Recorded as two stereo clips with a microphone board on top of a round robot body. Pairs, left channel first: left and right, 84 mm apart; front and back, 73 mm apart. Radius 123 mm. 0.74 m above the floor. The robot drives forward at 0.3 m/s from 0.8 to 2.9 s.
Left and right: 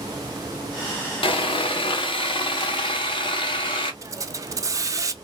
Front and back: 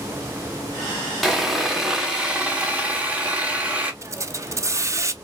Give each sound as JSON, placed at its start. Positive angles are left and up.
{"t": 1.2, "sound": "sawing", "azimuth_deg": 90, "distance_m": 1.5}
{"t": 4.0, "sound": "a hiss", "azimuth_deg": -135, "distance_m": 0.7}